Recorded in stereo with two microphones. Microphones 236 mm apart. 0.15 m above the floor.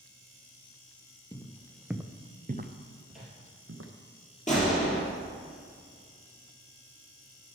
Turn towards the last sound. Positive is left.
turn(degrees=30)  # may be behind; listen again after turning